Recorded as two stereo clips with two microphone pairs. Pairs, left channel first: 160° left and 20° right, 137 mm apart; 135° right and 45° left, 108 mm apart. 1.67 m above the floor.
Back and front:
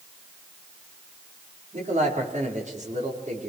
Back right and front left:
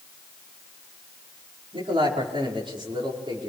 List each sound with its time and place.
1.7 s a man speaking: 5° left, 5.5 m; by 3.5 s straight ahead, 6 m